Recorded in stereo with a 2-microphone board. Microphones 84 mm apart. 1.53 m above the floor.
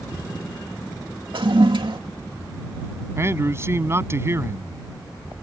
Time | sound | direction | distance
1.3 | a toilet flushing | 85° right | ?
3.2 | a man speaking | 30° right (ahead or behind) | ?